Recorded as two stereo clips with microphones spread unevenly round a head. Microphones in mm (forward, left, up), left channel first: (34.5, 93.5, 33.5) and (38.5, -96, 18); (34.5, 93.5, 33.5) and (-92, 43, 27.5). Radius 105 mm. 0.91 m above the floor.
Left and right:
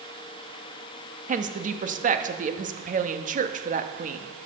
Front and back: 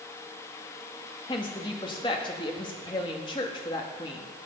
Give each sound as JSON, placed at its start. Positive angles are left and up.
{"t": 1.3, "sound": "a woman speaking", "azimuth_deg": -45, "distance_m": 1.0}